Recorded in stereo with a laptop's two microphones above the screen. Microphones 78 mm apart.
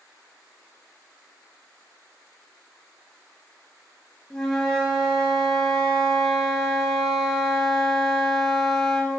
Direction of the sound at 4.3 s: 10° left (ahead or behind).